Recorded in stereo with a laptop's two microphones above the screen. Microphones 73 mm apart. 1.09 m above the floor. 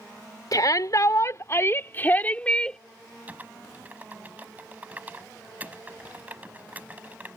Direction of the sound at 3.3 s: 20° right (ahead or behind).